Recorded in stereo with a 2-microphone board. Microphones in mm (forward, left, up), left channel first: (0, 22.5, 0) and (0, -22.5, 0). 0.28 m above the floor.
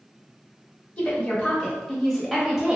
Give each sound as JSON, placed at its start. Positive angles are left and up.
{"t": 1.0, "sound": "a woman speaking", "side_deg": 30, "distance_m": 1.5}